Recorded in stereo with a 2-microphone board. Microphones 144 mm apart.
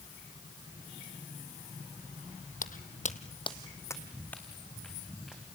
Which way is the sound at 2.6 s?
70° left (ahead or behind).